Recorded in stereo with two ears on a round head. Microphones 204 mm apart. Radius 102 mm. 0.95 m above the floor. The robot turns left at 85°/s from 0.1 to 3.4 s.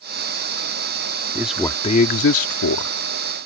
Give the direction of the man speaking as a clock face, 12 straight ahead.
6 o'clock.